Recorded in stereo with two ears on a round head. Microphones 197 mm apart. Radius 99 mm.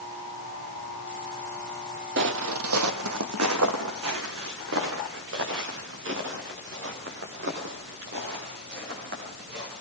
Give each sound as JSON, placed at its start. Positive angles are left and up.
{"t": 2.2, "sound": "footsteps", "side_deg": -50, "distance_m": 1.5}